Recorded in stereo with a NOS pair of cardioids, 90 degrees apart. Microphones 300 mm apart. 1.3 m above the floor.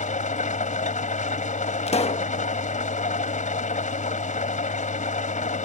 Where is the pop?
20° left.